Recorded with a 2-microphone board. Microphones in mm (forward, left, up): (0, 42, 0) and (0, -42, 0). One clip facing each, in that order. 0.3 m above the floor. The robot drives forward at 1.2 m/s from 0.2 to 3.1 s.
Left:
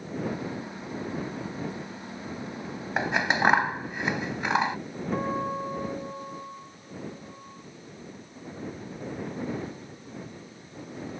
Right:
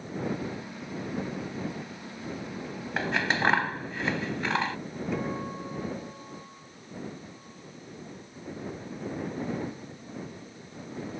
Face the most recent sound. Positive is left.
turn(degrees=35)  # may be behind; listen again after turning